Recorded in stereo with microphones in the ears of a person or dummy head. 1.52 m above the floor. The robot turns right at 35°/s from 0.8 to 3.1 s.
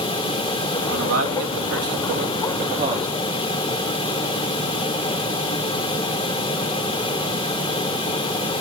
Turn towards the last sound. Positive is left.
turn(degrees=-20)